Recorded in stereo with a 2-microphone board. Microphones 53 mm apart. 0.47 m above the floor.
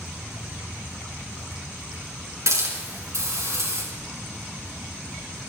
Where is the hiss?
75° right (ahead or behind), 5 m.